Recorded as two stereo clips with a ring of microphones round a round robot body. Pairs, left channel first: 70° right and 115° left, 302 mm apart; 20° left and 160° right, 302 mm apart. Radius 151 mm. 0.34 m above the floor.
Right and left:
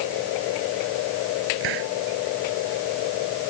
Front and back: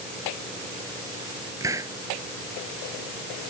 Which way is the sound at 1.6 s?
120° left.